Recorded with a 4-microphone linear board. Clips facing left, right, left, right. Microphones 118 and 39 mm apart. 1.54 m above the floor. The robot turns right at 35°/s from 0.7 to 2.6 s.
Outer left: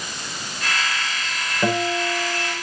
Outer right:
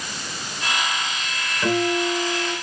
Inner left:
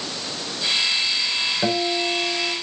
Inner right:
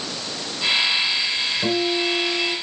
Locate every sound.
1.6 s a guitar: 150° left, 4.5 m; by 2.5 s 175° right, 4.5 m